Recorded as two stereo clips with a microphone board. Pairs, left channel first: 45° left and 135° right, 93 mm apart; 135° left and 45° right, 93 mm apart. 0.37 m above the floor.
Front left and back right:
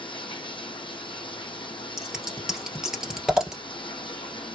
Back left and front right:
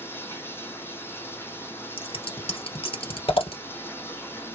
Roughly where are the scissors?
Behind left.